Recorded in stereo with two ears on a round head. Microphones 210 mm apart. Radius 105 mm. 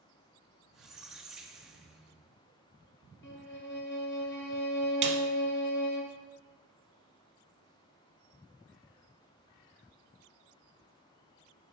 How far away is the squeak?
About 1.0 m.